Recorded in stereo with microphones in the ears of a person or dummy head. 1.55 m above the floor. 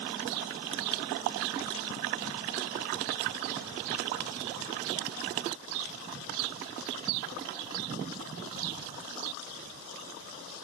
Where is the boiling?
I don't hear boiling.